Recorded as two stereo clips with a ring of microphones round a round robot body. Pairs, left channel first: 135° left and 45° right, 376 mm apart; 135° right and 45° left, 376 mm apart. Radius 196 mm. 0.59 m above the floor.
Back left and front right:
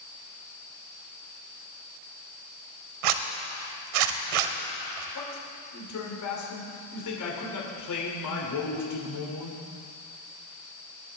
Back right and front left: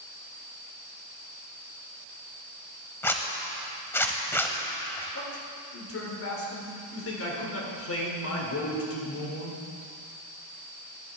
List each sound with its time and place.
3.0 s a zipper: 50° right, 1.0 m
5.2 s a man speaking: 175° left, 2.5 m